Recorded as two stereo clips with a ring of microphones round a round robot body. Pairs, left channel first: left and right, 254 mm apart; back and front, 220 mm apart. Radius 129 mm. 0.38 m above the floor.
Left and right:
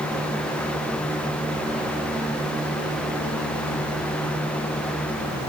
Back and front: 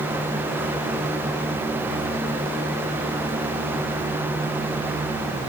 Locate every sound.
Only background noise.